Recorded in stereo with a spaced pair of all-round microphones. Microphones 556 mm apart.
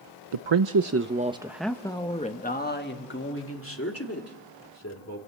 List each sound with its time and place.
0.3 s a man speaking: 65° right (ahead or behind), 0.6 m; by 5.2 s 30° left (ahead or behind), 3 m